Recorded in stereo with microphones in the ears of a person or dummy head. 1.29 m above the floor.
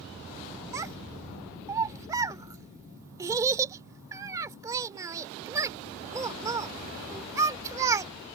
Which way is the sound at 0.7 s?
15° right (ahead or behind).